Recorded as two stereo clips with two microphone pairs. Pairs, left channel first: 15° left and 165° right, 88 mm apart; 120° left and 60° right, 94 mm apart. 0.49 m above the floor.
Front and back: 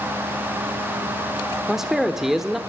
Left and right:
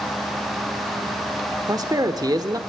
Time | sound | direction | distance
1.7 | a man speaking | 80° right | 1.5 m